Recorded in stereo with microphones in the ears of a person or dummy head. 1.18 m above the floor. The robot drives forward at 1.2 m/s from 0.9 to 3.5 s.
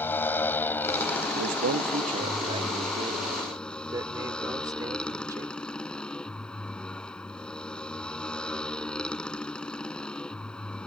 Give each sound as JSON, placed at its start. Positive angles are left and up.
{"t": 0.0, "sound": "a motorcycle", "side_deg": 10}
{"t": 1.3, "sound": "a man speaking", "side_deg": -75}